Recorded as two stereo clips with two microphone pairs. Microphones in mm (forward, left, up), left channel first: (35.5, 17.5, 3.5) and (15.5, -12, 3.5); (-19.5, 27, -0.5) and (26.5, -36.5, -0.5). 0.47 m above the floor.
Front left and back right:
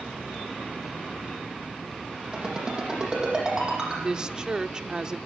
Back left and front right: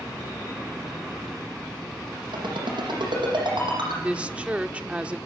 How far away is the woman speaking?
About 0.7 m.